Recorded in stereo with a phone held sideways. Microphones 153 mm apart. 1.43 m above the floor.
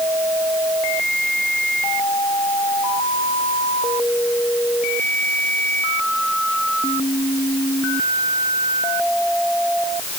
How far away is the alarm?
No alarm in this recording.